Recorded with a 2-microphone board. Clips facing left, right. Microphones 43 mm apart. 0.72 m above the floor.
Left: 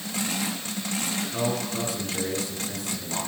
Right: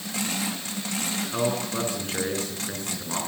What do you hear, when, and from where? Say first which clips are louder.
1.3 s a man speaking: right 3 dB; 40° right (ahead or behind), 9.5 m